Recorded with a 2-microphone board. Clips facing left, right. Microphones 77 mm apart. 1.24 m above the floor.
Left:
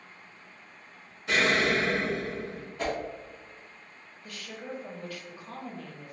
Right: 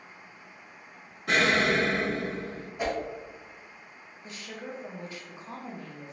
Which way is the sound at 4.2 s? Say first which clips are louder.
Even; 20° right (ahead or behind).